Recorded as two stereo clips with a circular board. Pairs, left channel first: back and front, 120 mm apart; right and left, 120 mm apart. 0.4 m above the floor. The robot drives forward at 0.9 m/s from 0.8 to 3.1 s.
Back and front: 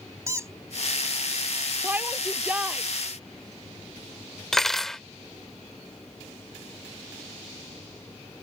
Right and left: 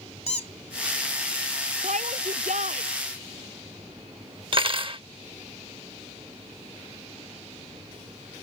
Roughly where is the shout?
Left.